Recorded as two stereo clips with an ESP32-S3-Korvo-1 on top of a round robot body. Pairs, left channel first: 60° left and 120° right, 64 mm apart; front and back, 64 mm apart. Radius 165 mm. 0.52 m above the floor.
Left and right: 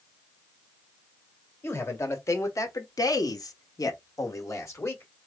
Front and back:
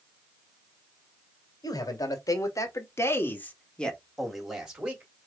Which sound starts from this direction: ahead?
A man speaking, at 1.6 s.